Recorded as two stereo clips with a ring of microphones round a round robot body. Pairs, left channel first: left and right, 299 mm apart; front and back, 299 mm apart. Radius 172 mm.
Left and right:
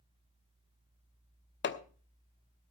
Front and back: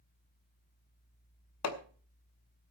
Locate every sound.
1.6 s hammering: 35° left, 1.2 m